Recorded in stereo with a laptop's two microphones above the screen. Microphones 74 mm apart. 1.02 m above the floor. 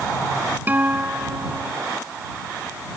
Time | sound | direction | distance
0.7 | a guitar | 25° right (ahead or behind) | ?